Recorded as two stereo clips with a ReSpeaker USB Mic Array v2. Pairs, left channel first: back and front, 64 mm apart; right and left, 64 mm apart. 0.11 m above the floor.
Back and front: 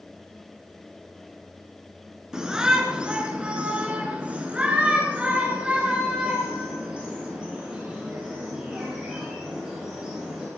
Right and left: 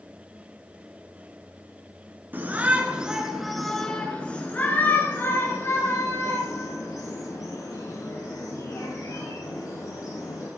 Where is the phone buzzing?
No phone buzzing in this recording.